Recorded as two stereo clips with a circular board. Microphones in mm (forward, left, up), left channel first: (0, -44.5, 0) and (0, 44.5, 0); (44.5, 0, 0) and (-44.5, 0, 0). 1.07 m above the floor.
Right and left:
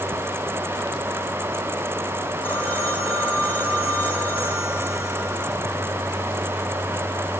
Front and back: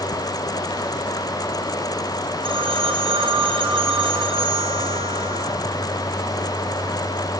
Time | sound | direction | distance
2.4 | a phone ringing | 165° right | 10 m